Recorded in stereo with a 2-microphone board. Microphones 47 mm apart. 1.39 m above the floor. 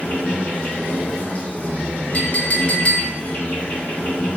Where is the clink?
35° left (ahead or behind), 0.9 m.